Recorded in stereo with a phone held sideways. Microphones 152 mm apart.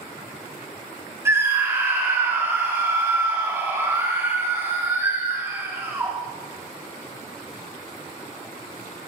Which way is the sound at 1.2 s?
15° right (ahead or behind).